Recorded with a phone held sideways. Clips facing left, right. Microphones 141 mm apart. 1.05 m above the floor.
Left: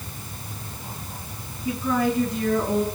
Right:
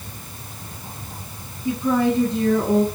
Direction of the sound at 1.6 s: 25° right (ahead or behind).